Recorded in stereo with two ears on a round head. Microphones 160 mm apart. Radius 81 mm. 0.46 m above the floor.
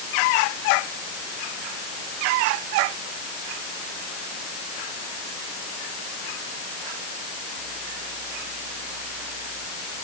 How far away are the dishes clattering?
I don't hear dishes clattering.